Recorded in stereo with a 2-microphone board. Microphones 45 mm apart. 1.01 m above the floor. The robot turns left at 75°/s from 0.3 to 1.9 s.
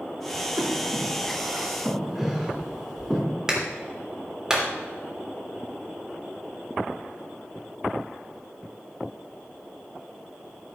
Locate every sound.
0.6 s breathing: 70° right (ahead or behind), 4 m; by 3.2 s 10° right (ahead or behind), 4 m
3.5 s a clap: 15° right (ahead or behind), 3 m